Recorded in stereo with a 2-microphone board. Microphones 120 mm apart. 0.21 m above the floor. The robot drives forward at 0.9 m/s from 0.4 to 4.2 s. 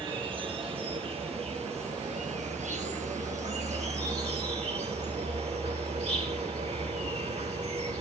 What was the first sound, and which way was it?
An insect, 45° right (ahead or behind).